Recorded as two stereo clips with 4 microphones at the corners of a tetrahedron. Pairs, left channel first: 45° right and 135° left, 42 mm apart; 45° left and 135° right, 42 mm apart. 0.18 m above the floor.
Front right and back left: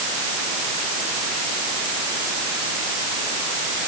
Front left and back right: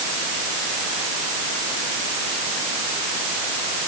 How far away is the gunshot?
I don't hear a gunshot.